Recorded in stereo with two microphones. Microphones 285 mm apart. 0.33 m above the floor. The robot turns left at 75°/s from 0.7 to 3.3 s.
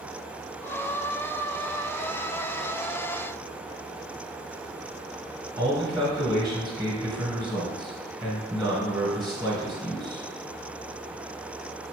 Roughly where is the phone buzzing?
I don't hear a phone buzzing.